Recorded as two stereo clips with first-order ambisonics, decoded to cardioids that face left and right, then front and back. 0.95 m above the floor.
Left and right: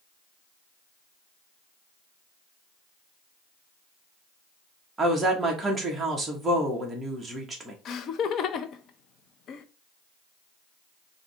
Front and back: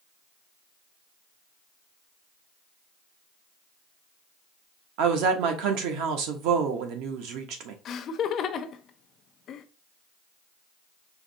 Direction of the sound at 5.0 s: 170° right.